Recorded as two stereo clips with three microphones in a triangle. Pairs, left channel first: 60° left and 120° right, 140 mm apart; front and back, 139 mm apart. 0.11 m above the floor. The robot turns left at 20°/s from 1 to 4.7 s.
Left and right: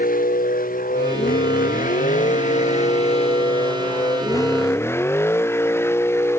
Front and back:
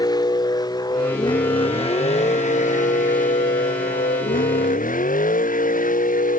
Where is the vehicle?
60° left; by 6.4 s 10° right.